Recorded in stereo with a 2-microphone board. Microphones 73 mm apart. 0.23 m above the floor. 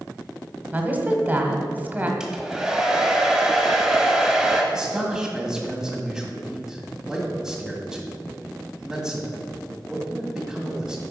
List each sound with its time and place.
0.7 s a woman speaking: 25° right (ahead or behind), 1.1 m
2.2 s a hair dryer: 10° right (ahead or behind), 1.3 m
4.7 s a man speaking: 5° right (ahead or behind), 1.8 m